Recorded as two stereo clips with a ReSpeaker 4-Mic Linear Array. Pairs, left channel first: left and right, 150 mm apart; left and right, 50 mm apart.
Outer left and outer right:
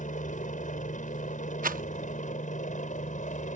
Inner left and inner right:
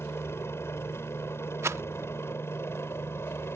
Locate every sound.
0.0 s a helicopter: 65° left (ahead or behind); by 3.6 s 60° left (ahead or behind)
1.6 s a rattle: 80° right